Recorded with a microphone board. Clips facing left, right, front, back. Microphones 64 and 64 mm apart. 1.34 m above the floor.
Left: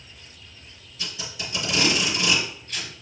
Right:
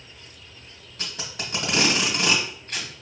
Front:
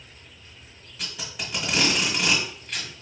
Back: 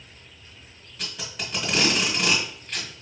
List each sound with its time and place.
1.0 s tape being pulled: 85° right, 1.7 m